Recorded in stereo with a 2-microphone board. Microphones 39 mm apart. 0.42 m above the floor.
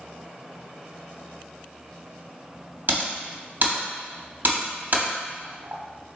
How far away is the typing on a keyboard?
About 1.0 m.